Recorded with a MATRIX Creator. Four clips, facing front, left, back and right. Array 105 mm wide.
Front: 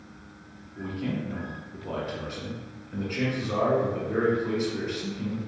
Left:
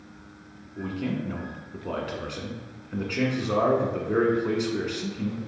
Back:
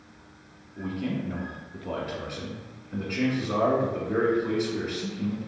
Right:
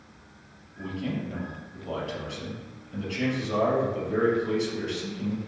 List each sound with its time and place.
0.8 s a man speaking: 95° left, 1.4 m